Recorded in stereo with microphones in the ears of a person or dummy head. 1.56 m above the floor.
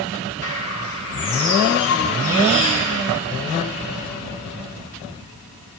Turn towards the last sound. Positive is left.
turn(degrees=70)  # may be behind; listen again after turning